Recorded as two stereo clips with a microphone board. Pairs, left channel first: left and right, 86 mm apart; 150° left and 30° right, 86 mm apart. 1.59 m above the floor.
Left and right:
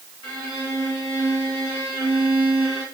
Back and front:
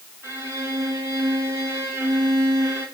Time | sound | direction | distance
0.2 | a violin | 85° right | 5 m